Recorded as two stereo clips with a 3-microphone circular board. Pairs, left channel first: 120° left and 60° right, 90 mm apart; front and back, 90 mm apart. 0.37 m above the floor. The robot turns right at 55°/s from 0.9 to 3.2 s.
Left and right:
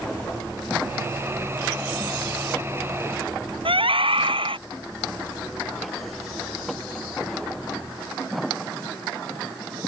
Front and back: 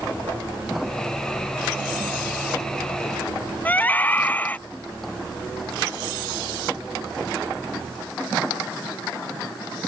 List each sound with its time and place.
3.6 s a scream: 70° right